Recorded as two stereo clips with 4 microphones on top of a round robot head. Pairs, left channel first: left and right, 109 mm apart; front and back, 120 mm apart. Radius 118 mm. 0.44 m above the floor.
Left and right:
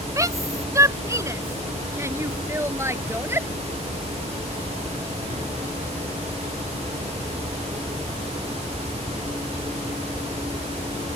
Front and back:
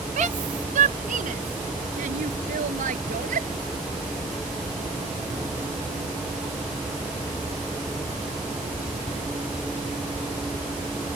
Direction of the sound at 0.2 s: 150° right.